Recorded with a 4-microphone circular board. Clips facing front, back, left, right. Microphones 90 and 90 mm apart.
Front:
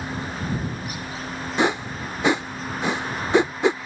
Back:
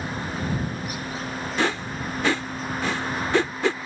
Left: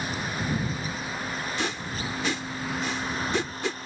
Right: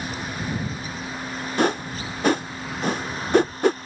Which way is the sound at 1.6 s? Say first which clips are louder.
Front 4 dB, right 8 dB; 65° right.